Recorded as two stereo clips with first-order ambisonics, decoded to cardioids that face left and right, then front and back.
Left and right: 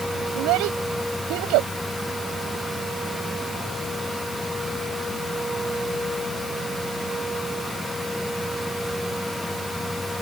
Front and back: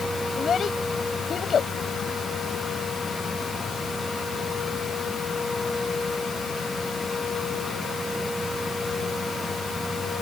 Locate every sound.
0.3 s a child speaking: 65° right